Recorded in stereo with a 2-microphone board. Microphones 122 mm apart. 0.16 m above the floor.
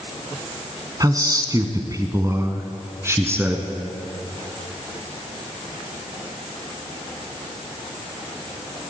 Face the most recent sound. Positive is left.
turn(degrees=-20)  # may be behind; listen again after turning